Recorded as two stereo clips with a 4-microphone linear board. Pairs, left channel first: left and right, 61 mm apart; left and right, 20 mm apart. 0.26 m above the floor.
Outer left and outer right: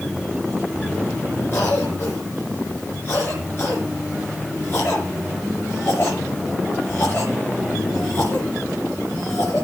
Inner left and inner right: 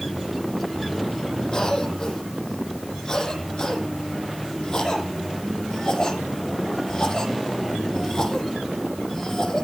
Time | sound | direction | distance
1.5 | a cough | 40° left (ahead or behind) | 5 m